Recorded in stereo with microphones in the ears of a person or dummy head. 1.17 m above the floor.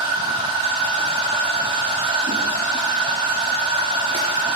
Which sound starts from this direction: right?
A machine running, at 0.0 s.